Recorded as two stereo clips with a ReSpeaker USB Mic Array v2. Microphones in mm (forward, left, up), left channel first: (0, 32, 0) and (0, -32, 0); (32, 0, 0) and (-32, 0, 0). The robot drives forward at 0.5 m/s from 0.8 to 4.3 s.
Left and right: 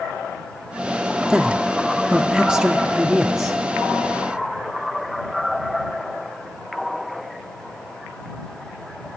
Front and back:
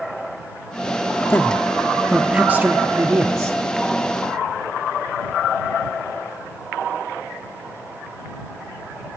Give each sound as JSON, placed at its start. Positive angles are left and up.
{"t": 1.3, "sound": "a man speaking", "azimuth_deg": -20, "distance_m": 0.7}